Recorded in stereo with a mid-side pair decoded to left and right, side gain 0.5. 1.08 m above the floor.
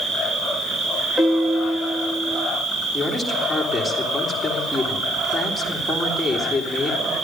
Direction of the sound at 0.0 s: 50° right.